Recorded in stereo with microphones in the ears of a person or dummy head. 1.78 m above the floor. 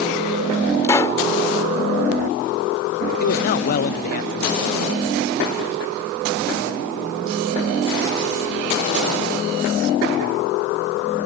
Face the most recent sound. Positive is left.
turn(degrees=50)  # may be behind; listen again after turning